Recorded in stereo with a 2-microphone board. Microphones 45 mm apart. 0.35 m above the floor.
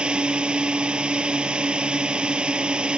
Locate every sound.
0.0 s a drone: 20° right (ahead or behind)